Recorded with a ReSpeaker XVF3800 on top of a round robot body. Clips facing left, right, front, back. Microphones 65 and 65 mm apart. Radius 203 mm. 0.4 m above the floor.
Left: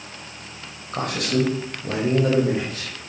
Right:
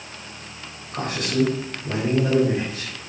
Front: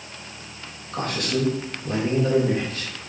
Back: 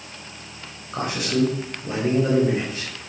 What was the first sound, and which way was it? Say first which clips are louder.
A man speaking: left 1 dB, back 2 dB; 105° left.